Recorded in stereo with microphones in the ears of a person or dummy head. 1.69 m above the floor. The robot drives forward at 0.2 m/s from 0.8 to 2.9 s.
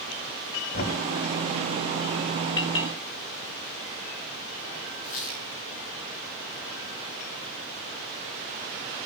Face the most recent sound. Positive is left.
turn(degrees=55)  # may be behind; listen again after turning